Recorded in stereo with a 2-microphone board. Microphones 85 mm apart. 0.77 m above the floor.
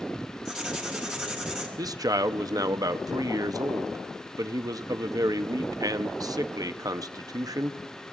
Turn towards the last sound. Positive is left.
turn(degrees=-45)  # may be behind; listen again after turning